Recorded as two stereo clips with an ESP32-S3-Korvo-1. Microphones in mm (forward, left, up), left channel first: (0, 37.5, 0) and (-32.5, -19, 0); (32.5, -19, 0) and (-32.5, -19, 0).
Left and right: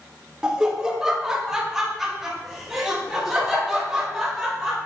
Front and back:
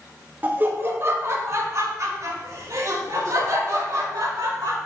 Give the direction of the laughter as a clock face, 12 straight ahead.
6 o'clock.